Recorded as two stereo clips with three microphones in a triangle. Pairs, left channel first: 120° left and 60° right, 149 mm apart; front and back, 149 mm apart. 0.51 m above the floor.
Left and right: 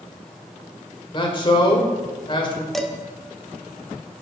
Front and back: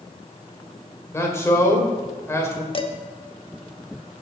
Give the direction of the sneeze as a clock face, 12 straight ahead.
No sneeze in this recording.